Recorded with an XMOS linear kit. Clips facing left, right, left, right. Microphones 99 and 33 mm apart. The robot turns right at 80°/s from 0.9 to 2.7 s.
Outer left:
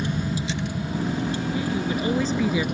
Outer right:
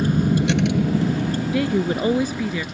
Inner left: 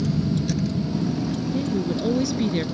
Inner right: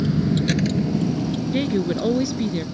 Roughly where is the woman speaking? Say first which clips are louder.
Outer right 5 dB, inner right 4 dB; right.